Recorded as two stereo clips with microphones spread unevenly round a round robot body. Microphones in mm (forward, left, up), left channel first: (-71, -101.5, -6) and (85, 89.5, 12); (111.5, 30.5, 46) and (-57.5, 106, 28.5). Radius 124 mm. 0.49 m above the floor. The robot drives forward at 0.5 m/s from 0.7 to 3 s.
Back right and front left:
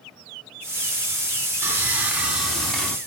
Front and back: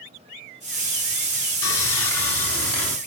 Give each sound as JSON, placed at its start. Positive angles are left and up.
{"t": 1.6, "sound": "sawing", "azimuth_deg": -30, "distance_m": 2.0}